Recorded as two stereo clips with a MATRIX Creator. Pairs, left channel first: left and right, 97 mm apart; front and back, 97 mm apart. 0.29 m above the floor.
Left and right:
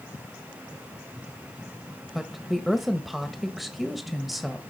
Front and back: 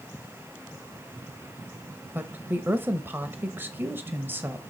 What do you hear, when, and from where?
2.1 s a woman speaking: 175° right, 1.0 m